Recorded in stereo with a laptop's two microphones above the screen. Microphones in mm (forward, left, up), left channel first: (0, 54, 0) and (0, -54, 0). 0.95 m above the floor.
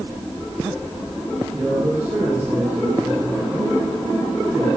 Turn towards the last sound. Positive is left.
turn(degrees=-25)  # may be behind; listen again after turning